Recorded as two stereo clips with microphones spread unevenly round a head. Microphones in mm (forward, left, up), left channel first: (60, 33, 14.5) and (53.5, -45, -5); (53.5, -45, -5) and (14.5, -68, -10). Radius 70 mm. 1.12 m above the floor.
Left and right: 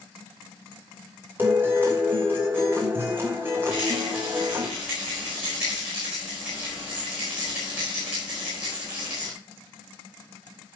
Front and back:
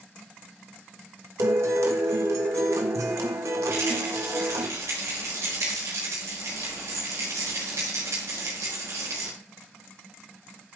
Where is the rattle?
170° right, 4 m.